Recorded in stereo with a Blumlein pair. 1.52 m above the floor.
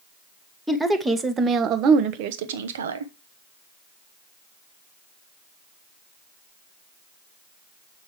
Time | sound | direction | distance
0.7 | a woman speaking | 5° right | 1.4 m